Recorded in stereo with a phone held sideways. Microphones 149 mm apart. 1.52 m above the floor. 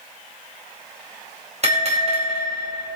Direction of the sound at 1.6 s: 50° right (ahead or behind).